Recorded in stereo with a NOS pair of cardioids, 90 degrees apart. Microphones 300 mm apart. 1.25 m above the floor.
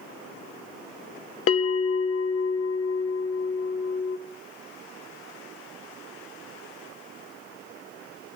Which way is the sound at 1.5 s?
50° left.